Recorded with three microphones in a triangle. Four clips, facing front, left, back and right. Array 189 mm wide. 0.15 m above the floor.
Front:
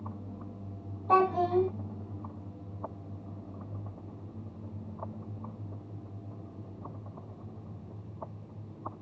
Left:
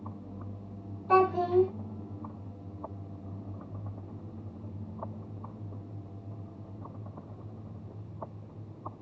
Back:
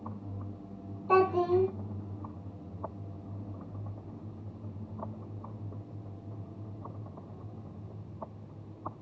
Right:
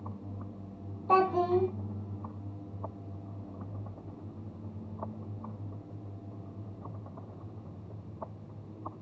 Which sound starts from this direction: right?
A child speaking, at 1.1 s.